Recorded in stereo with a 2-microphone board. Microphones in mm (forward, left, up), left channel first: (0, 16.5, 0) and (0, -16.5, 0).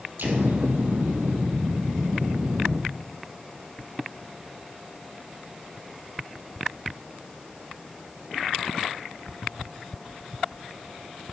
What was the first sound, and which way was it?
An explosion, 85° right.